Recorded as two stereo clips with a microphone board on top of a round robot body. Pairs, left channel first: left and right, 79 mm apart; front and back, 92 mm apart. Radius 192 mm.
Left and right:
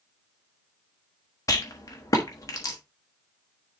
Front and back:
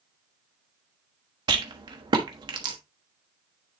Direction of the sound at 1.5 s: 140° left.